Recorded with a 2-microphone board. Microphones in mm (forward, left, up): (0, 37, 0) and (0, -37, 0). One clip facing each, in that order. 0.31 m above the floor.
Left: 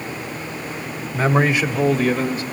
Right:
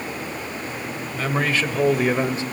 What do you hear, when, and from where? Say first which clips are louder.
1.1 s a man speaking: left 5 dB; 35° left (ahead or behind), 1.4 m; by 2.4 s 30° right (ahead or behind), 1.3 m